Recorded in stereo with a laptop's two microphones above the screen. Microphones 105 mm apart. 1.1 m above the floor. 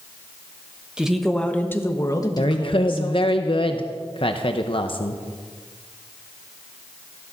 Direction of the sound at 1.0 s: 10° right (ahead or behind).